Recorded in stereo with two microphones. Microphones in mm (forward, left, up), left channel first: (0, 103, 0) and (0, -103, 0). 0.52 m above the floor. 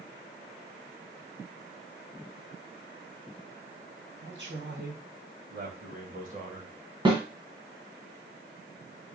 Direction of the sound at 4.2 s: 65° right (ahead or behind).